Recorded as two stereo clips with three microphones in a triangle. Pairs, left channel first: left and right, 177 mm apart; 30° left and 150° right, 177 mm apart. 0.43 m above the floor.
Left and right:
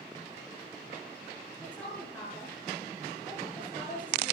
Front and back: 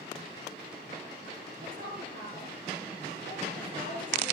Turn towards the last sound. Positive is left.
turn(degrees=170)